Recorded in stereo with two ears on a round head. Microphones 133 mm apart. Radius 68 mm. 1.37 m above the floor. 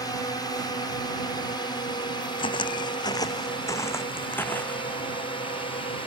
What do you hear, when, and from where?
0.0 s a drone: 25° left (ahead or behind); by 6.1 s 40° left (ahead or behind)
2.4 s footsteps: 35° left (ahead or behind); by 4.9 s 10° left (ahead or behind)